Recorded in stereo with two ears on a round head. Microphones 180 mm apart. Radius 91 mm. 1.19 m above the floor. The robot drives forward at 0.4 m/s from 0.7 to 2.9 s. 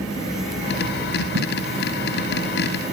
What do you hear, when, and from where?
1.4 s tape being pulled: 85° right